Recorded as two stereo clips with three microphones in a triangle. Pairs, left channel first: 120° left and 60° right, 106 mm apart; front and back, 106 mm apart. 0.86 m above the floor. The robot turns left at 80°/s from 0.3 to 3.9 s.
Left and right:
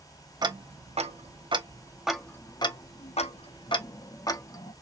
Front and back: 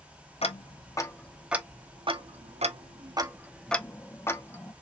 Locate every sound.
0.4 s ticking: 10° right, 0.6 m; by 4.7 s 70° left, 0.6 m